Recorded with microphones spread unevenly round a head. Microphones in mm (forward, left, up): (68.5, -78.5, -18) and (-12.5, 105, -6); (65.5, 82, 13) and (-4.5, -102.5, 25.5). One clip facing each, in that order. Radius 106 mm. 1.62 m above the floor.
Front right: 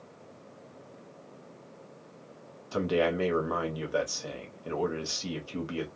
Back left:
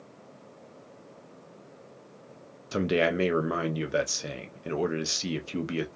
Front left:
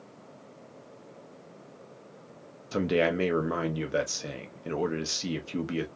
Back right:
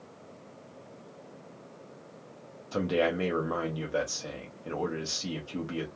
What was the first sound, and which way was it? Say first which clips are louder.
A man speaking: back left 1 dB, front left 2 dB; 120° left.